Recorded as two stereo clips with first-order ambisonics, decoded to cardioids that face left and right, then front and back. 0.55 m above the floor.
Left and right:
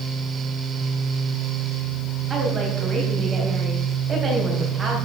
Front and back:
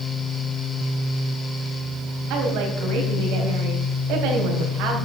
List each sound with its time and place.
2.3 s a woman speaking: 155° right, 3.5 m